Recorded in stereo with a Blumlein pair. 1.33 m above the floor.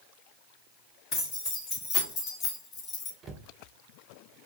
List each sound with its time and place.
1.1 s keys jangling: 35° left, 1.8 m; by 3.1 s 25° left, 0.6 m
3.2 s a cupboard door: 20° right, 0.6 m